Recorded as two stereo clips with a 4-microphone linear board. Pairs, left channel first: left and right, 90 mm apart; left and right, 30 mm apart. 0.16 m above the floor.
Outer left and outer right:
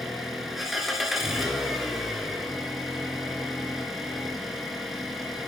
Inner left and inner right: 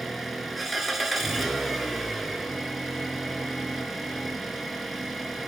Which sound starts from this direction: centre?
An engine running, at 0.0 s.